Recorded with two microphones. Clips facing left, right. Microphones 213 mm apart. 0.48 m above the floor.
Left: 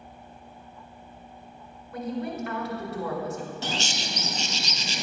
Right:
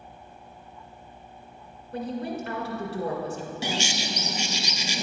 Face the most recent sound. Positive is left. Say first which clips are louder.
# right 2 dB
turn(degrees=-10)  # may be behind; listen again after turning